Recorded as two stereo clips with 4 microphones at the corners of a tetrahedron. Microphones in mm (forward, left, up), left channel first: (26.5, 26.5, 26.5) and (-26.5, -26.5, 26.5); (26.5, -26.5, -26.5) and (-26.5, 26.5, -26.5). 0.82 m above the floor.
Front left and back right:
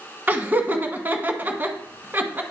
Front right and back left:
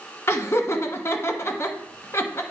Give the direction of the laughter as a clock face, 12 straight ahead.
3 o'clock.